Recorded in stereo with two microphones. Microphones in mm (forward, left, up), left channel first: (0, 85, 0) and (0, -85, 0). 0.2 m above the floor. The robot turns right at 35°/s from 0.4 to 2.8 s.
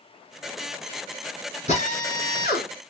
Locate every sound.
1.7 s a drill: 50° left, 2 m; by 2.7 s 85° left, 2 m